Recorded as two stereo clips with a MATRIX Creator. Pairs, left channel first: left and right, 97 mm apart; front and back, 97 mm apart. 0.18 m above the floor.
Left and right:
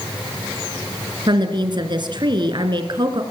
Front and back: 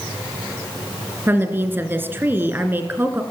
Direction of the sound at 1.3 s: 115° right.